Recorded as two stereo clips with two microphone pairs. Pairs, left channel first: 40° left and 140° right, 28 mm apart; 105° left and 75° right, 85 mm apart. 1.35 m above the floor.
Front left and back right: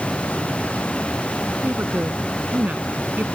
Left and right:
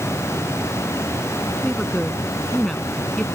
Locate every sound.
1.6 s a woman speaking: 170° right